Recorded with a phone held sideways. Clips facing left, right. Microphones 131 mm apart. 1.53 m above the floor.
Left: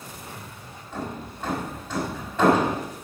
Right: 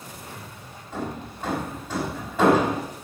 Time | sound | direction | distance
0.9 | hammering | 10° right (ahead or behind) | 5 m